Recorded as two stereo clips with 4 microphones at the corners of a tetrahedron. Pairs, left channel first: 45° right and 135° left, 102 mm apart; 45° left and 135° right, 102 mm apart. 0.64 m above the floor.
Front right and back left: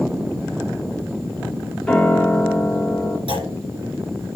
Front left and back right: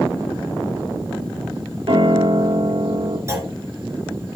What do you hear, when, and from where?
1.9 s a piano: 130° right, 2.5 m
3.3 s a clunk: 165° left, 3.5 m